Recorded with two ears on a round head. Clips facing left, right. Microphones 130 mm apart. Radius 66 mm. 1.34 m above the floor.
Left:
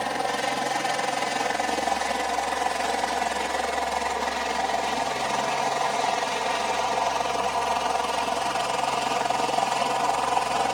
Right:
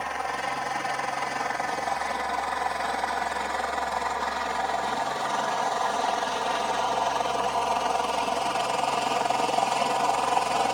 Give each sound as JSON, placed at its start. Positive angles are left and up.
{"t": 0.0, "sound": "a helicopter", "side_deg": 35}